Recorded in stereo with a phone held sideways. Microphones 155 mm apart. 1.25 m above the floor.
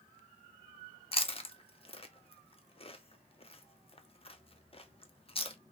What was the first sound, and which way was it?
Chewing, 40° left (ahead or behind).